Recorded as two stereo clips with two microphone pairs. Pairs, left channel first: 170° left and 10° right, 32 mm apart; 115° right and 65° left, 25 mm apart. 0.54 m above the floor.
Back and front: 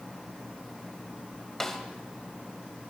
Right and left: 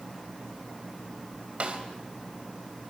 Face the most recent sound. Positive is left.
turn(degrees=95)